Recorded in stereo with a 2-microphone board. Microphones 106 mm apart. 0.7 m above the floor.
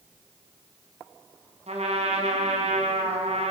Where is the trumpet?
85° right, 4.5 m.